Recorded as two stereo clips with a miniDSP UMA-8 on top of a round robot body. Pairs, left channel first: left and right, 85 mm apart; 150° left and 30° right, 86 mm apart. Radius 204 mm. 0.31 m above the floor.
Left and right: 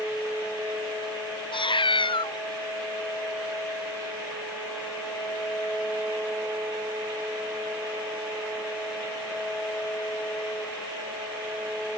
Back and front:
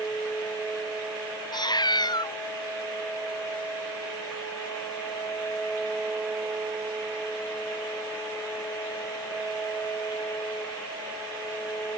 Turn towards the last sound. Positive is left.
turn(degrees=110)